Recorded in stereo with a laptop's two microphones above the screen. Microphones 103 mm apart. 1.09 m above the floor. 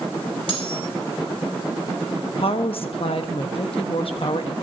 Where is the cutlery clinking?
60° left (ahead or behind), 3.5 m.